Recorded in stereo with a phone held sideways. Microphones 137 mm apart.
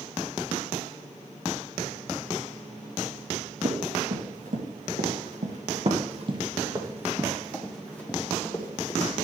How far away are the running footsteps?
About 4 m.